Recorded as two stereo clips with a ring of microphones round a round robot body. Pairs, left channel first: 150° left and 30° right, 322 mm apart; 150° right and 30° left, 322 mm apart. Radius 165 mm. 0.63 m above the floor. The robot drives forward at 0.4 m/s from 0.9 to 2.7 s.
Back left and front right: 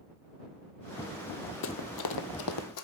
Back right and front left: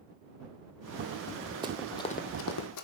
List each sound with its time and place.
1.6 s running footsteps: 105° left, 1.0 m; by 2.9 s straight behind, 1.5 m